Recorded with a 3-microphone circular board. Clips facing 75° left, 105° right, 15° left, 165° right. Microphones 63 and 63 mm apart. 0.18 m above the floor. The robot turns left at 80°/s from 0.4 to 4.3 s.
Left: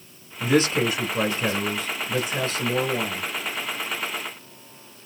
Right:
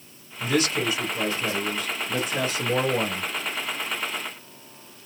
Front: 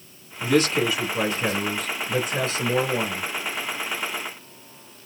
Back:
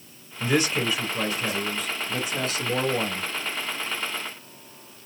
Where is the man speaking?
140° left, 1.8 m; by 3.3 s 90° right, 1.8 m.